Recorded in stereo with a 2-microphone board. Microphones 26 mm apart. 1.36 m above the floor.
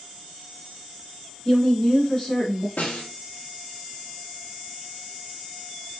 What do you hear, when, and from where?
1.4 s a woman speaking: 15° left (ahead or behind), 2.5 m; by 2.7 s 20° left (ahead or behind), 1.5 m
2.8 s a snare drum: 75° left (ahead or behind), 1.2 m